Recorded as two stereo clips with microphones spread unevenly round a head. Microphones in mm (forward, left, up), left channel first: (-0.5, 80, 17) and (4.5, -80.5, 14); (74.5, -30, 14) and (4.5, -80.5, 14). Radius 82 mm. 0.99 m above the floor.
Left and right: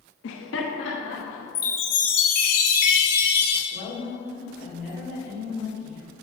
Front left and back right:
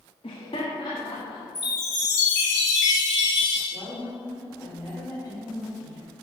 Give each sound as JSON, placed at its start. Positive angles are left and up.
{"t": 0.2, "sound": "laughter", "azimuth_deg": 85, "distance_m": 0.7}
{"t": 1.6, "sound": "a chime", "azimuth_deg": 120, "distance_m": 1.4}
{"t": 3.7, "sound": "a woman speaking", "azimuth_deg": 120, "distance_m": 2.5}